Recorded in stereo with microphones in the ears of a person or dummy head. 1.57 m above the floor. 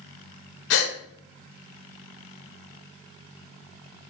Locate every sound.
0.7 s a gasp: 70° left (ahead or behind), 0.9 m